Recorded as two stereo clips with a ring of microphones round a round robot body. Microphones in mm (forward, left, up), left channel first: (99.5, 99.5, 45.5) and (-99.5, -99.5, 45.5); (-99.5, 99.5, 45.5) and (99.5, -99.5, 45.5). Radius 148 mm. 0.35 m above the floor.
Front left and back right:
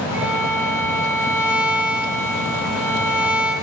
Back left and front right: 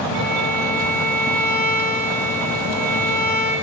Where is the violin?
50° right, 8 m.